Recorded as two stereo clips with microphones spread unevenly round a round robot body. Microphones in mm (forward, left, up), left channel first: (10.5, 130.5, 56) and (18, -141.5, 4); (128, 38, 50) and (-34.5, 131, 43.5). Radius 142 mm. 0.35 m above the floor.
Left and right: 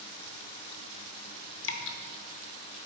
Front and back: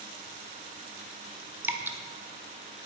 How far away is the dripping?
About 0.6 m.